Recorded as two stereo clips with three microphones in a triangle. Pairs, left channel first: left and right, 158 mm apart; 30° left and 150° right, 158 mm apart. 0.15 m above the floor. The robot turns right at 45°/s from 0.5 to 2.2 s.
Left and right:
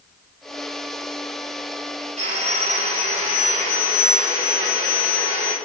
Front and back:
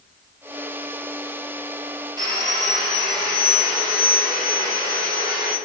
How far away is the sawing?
About 1.0 m.